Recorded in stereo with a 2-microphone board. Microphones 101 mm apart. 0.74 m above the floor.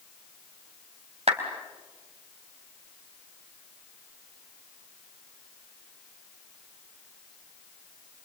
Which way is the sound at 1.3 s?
85° right.